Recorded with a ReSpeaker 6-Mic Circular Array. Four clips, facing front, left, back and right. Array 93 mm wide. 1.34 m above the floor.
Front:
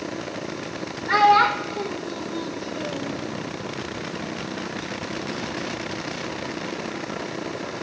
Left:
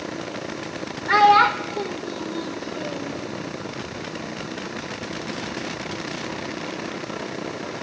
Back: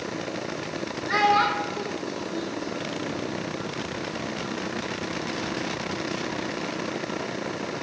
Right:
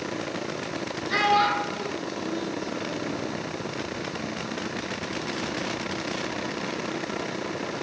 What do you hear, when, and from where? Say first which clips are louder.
1.1 s a child speaking: left 7 dB, front 5 dB; 70° left, 2 m; by 3.1 s 35° left, 2.5 m